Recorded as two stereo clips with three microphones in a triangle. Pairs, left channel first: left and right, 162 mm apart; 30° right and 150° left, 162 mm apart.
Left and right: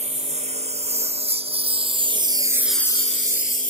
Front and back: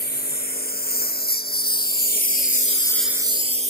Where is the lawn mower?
45° right; by 3.7 s 115° left.